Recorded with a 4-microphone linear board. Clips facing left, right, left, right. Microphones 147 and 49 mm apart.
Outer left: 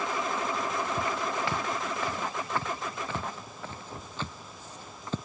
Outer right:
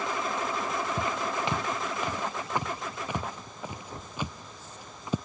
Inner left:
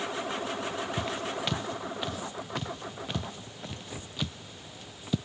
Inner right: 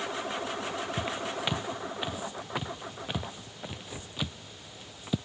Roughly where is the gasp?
No gasp in this recording.